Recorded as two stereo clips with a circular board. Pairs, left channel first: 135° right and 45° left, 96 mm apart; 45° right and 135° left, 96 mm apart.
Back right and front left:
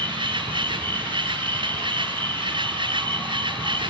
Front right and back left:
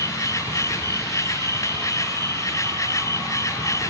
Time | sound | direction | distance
0.0 | an insect | 10° left | ?